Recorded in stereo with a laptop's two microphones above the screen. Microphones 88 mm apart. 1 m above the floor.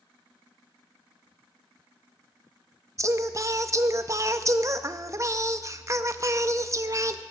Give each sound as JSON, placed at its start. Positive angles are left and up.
{"t": 3.0, "sound": "singing", "side_deg": -35, "distance_m": 0.6}